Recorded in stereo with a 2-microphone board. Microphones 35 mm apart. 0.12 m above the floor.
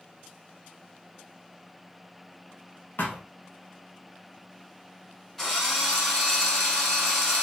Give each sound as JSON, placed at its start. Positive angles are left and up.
{"t": 3.0, "sound": "a thud", "side_deg": 70, "distance_m": 1.3}
{"t": 5.4, "sound": "a drill", "side_deg": 10, "distance_m": 1.8}